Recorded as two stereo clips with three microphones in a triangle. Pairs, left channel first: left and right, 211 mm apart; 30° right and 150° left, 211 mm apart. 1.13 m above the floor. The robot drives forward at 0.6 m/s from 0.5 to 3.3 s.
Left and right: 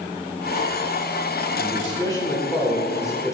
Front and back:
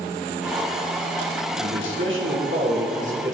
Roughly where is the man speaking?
Behind.